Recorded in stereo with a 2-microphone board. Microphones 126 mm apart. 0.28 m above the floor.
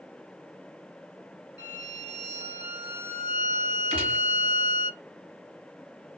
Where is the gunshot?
50° right (ahead or behind), 3 m.